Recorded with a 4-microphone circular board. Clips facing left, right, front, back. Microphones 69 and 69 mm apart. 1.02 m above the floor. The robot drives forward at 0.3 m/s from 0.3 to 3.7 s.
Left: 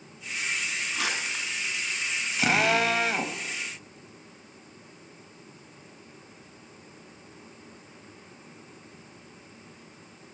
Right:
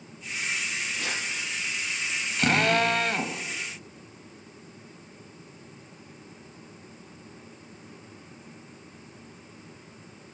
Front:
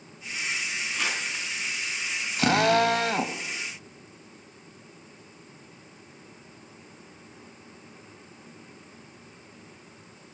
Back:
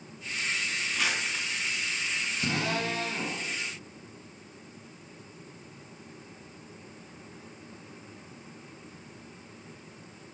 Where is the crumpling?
90° left, 3.5 m; by 1.4 s 95° left, 3.5 m.